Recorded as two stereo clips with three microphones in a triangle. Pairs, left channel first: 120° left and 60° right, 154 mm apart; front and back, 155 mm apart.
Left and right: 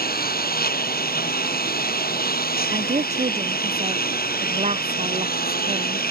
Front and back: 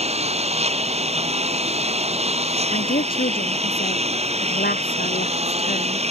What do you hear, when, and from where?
0.0 s a lawn mower: 135° left
2.7 s a woman speaking: 15° right